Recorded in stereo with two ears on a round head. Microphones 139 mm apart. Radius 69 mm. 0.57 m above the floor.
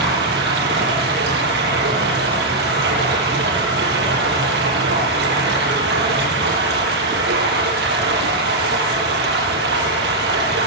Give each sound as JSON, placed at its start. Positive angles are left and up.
{"t": 0.0, "sound": "running water", "side_deg": -75, "distance_m": 8.0}